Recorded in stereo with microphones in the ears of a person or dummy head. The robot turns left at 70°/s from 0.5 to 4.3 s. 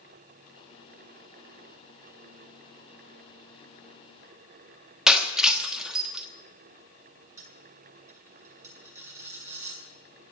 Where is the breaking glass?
5° right (ahead or behind), 1.4 m.